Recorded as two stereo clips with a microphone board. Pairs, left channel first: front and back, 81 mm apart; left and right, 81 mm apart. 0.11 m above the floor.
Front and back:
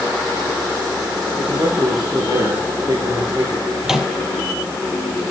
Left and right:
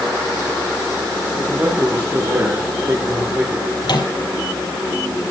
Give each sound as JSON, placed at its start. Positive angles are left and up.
{"t": 1.4, "sound": "a man speaking", "azimuth_deg": -145, "distance_m": 5.5}
{"t": 3.8, "sound": "a microwave", "azimuth_deg": 95, "distance_m": 2.5}